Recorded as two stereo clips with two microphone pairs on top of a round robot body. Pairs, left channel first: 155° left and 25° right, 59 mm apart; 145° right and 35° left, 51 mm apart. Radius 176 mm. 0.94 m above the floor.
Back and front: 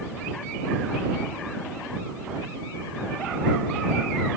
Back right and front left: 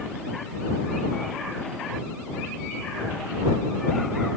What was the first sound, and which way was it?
Only background noise.